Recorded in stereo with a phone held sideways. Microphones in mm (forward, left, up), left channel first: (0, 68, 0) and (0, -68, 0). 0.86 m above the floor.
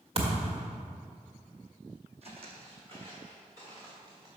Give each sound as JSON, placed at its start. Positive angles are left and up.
{"t": 0.1, "sound": "a thud", "side_deg": -45, "distance_m": 1.5}
{"t": 2.2, "sound": "footsteps", "side_deg": -50, "distance_m": 1.5}